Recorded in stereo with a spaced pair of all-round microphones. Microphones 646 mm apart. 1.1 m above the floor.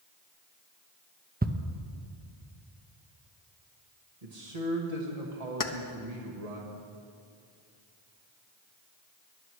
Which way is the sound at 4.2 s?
70° right (ahead or behind).